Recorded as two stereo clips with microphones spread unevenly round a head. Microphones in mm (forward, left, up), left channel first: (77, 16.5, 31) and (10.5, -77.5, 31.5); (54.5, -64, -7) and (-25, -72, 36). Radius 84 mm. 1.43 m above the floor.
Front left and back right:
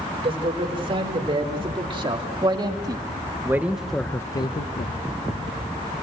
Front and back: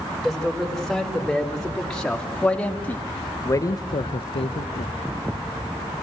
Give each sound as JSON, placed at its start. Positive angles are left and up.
{"t": 0.2, "sound": "a man speaking", "azimuth_deg": -90, "distance_m": 5.0}